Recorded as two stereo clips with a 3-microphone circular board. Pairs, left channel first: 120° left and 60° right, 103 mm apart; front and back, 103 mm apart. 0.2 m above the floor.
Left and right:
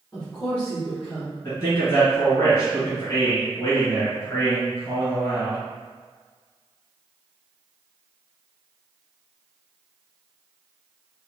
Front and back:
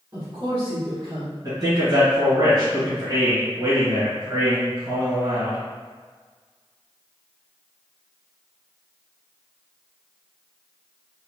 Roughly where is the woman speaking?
Behind.